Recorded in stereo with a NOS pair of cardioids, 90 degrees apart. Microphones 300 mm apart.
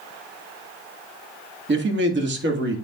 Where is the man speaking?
40° right, 1.9 m.